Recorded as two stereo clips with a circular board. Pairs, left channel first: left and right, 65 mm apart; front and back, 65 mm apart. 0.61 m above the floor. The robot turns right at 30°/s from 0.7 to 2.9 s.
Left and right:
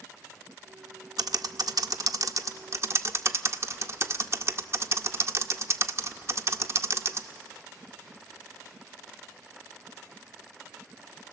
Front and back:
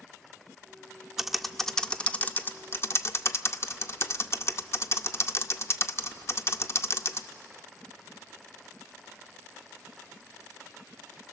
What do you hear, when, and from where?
1.2 s typing on a keyboard: 95° right, 0.6 m; by 7.3 s 45° right, 0.6 m